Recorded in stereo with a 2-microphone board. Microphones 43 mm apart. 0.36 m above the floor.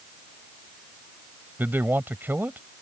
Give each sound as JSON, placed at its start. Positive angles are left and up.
{"t": 1.6, "sound": "a man speaking", "side_deg": -55}